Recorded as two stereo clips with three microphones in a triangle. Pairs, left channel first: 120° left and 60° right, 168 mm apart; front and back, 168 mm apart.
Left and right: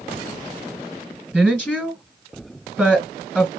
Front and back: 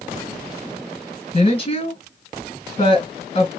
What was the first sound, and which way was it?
A woman speaking, 30° left.